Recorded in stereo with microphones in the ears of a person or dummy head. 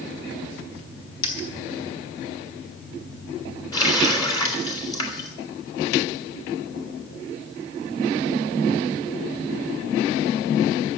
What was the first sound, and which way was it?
A dropped coin, 45° left (ahead or behind).